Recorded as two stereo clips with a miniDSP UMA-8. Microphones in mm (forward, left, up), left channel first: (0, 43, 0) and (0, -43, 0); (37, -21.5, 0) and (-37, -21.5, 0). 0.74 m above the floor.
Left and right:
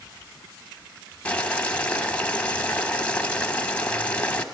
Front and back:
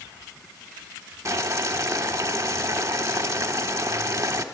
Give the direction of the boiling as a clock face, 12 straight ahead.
7 o'clock.